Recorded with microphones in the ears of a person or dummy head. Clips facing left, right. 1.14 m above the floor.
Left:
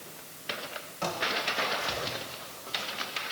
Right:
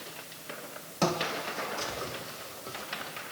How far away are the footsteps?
About 3.5 m.